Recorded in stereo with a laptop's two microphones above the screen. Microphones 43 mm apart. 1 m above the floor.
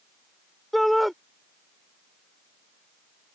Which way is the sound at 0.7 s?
Centre (ahead or behind).